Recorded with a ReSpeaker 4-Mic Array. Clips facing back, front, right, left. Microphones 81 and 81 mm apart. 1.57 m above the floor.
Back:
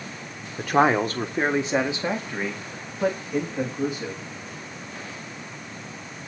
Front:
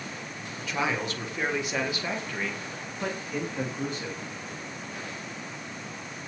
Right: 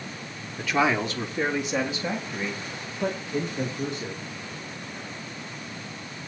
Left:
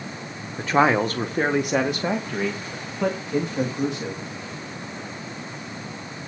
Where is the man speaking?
145° left, 1.7 m; by 4.2 s 95° left, 4 m.